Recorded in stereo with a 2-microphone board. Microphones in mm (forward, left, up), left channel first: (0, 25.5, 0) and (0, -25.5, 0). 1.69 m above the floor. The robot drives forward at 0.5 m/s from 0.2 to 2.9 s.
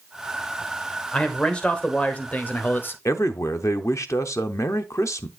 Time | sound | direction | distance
1.1 | a man speaking | 20° left (ahead or behind) | 1.5 m
3.0 | a man speaking | 75° left (ahead or behind) | 0.7 m